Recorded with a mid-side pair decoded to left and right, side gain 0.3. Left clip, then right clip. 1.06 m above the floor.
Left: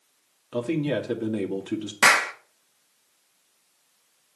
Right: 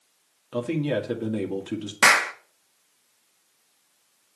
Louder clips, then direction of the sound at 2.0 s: Right 1 dB; 15° right.